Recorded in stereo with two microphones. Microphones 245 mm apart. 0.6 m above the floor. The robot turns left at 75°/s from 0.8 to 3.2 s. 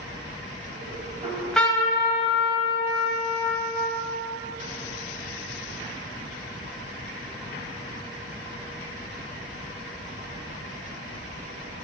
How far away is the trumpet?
About 1.7 m.